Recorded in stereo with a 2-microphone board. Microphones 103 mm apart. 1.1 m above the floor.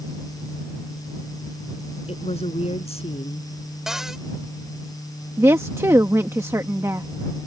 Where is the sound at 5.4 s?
25° right (ahead or behind).